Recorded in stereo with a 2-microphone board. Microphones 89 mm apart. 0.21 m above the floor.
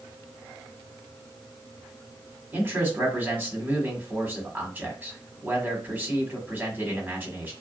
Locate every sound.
2.5 s a man speaking: 20° right (ahead or behind), 1.2 m